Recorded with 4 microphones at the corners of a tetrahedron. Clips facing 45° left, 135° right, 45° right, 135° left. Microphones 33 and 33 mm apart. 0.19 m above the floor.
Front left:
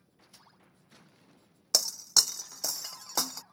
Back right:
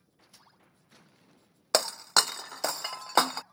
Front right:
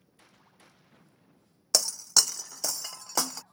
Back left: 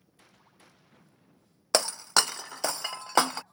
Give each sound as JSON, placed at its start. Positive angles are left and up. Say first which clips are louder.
{"t": 1.7, "sound": "breaking glass", "louder": "back right 3 dB, back left 2 dB", "azimuth_deg": -175}